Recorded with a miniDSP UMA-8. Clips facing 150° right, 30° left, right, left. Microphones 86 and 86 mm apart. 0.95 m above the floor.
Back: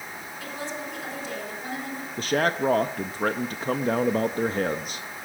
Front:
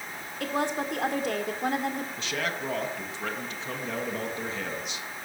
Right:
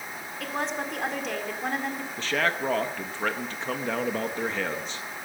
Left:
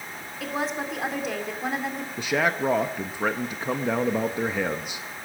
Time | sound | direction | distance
0.4 | a woman speaking | straight ahead | 2.5 m
2.2 | a man speaking | 165° left | 0.7 m